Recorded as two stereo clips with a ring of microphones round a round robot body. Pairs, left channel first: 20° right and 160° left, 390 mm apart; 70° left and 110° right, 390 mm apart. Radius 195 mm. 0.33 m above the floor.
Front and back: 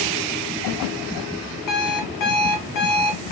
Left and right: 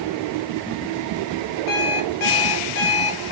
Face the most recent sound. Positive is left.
turn(degrees=15)